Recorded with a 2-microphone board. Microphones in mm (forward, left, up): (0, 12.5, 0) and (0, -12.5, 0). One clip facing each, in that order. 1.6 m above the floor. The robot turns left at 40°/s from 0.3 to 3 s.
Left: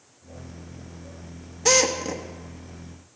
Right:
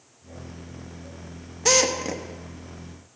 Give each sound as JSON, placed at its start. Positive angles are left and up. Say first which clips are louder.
{"t": 1.6, "sound": "a drill", "louder": "even", "side_deg": 0, "distance_m": 1.1}